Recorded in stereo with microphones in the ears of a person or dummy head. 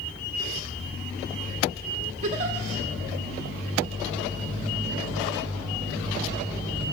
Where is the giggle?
40° right (ahead or behind), 1.1 m.